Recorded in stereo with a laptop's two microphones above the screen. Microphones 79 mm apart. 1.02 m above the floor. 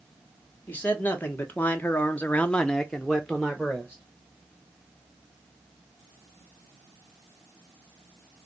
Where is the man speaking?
25° left (ahead or behind), 1.1 m; by 4.0 s 5° right (ahead or behind), 1.0 m.